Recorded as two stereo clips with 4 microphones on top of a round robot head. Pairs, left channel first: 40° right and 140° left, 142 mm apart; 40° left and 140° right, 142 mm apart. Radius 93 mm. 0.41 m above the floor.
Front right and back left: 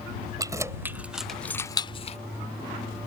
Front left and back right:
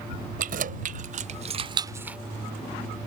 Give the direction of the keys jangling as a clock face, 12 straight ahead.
5 o'clock.